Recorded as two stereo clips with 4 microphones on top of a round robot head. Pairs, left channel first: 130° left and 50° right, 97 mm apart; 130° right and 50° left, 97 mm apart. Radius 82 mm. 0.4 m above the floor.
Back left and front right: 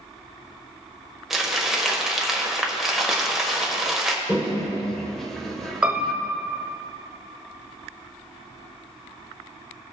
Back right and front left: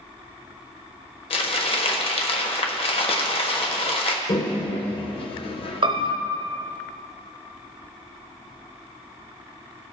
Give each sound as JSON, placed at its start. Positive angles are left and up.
{"t": 1.3, "sound": "crumpling", "azimuth_deg": -135, "distance_m": 1.2}
{"t": 4.3, "sound": "a toilet flushing", "azimuth_deg": -145, "distance_m": 1.2}
{"t": 5.8, "sound": "a piano", "azimuth_deg": 30, "distance_m": 0.8}